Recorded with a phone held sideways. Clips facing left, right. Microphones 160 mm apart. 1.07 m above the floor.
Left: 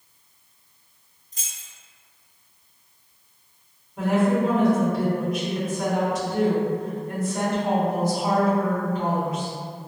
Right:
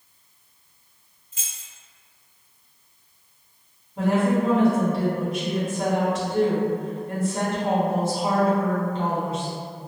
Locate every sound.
1.3 s keys jangling: 40° left (ahead or behind), 0.8 m
4.0 s a woman speaking: 30° right (ahead or behind), 1.5 m